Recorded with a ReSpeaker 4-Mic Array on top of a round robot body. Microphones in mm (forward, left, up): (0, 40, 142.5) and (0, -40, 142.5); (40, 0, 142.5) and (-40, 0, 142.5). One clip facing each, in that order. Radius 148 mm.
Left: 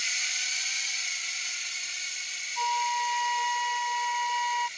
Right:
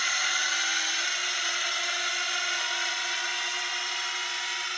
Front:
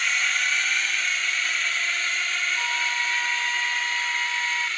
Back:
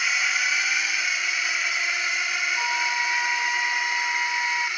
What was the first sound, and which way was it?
A drone, 100° right.